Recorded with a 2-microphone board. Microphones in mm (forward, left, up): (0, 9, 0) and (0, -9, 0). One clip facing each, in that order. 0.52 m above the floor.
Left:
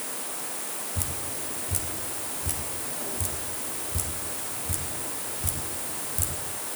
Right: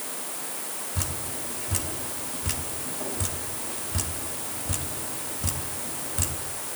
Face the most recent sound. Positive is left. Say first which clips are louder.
# right 3 dB
turn(degrees=-25)  # may be behind; listen again after turning